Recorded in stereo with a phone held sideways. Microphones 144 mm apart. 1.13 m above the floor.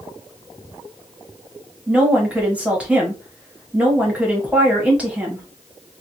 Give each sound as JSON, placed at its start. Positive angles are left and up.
{"t": 1.9, "sound": "a woman speaking", "side_deg": -10, "distance_m": 1.1}